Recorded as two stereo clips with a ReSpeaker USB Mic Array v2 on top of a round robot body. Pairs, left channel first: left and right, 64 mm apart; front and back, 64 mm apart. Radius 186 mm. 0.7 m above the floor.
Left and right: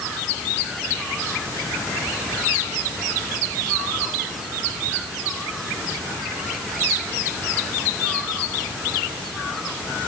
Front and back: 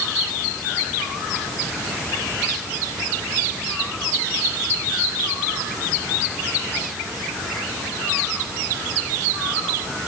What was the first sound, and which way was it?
Only background noise.